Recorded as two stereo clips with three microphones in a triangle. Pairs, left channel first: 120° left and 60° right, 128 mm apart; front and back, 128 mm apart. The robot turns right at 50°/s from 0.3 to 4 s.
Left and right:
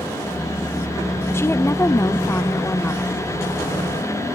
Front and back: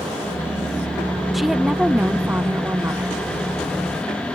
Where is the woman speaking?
90° left, 0.7 m; by 3.3 s 175° right, 0.7 m.